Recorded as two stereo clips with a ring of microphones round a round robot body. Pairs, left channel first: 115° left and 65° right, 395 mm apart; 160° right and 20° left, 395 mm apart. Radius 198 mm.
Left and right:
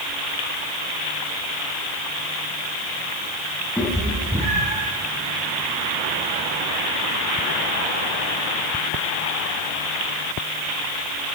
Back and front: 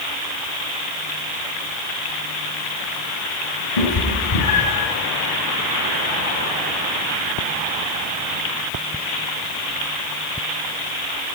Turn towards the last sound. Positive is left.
turn(degrees=-135)